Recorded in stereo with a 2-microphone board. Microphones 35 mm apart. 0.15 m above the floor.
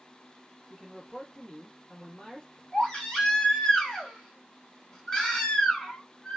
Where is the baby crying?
20° left (ahead or behind), 1.1 m.